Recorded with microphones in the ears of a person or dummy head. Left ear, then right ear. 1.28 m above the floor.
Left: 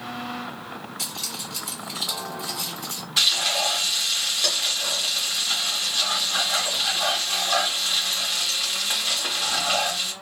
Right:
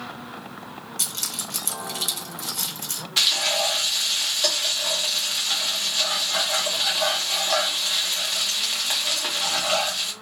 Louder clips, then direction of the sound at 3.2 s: Even; 15° right (ahead or behind).